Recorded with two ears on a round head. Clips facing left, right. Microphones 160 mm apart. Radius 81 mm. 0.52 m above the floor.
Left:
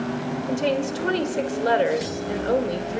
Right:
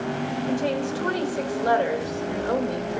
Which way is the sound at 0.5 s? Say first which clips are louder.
Left 3 dB; 30° left (ahead or behind).